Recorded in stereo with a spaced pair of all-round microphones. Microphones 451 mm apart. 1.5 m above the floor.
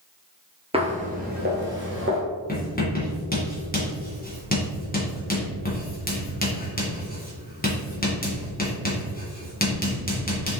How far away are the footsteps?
About 1.5 m.